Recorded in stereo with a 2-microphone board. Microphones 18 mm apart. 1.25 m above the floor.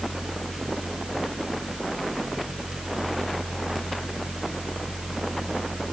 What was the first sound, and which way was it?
Only background noise.